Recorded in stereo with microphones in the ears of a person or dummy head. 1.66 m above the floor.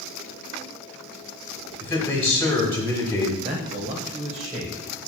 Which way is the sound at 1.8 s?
10° left (ahead or behind).